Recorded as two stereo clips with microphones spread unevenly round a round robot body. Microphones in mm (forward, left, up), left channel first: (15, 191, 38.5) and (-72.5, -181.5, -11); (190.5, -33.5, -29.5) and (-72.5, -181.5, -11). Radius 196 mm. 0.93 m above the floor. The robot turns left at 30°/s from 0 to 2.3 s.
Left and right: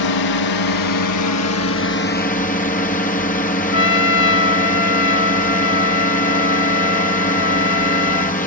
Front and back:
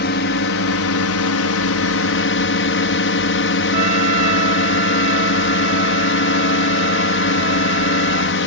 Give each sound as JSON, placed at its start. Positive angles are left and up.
{"t": 0.0, "sound": "a drone", "azimuth_deg": 75}
{"t": 3.7, "sound": "a trumpet", "azimuth_deg": 135}